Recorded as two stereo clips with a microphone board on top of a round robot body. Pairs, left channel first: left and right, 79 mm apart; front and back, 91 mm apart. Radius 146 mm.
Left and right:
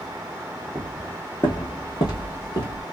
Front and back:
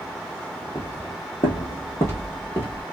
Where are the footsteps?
55° right, 0.7 m; by 2.8 s 70° left, 1.4 m.